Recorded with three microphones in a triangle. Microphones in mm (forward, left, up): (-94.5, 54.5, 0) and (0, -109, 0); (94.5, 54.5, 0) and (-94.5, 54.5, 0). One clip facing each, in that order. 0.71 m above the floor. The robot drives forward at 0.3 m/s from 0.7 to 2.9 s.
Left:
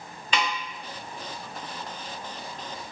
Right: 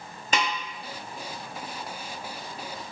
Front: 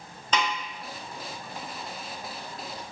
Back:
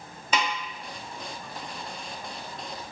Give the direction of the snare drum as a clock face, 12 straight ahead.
3 o'clock.